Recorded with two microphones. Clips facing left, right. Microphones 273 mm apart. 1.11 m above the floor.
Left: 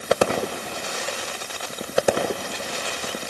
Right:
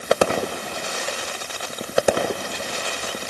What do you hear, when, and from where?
Only background noise.